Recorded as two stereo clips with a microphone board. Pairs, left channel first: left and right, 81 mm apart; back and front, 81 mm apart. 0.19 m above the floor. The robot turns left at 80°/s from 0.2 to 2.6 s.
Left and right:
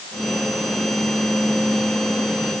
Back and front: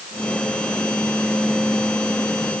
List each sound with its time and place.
Only background noise.